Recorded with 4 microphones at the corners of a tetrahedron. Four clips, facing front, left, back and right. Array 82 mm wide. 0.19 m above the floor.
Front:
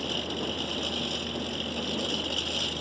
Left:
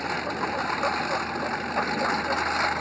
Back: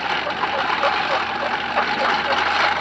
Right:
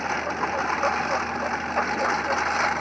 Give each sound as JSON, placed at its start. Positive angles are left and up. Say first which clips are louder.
{"t": 0.0, "sound": "a lawn mower", "louder": "right 2 dB, back 11 dB", "azimuth_deg": -170}